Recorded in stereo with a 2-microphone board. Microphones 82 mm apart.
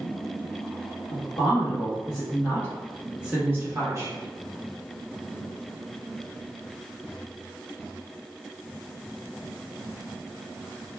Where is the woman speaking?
70° left (ahead or behind), 1.3 m; by 4.1 s 40° right (ahead or behind), 1.1 m.